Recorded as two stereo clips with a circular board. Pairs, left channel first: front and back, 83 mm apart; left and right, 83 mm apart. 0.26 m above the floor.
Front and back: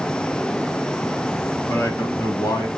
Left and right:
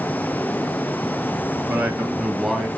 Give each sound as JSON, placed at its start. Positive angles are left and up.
{"t": 1.7, "sound": "a man speaking", "azimuth_deg": -25, "distance_m": 1.4}